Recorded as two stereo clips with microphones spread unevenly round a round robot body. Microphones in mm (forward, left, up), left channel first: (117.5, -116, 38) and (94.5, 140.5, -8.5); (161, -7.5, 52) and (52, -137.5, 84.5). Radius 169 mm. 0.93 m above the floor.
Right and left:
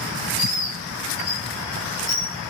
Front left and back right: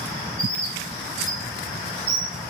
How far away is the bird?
About 1.6 m.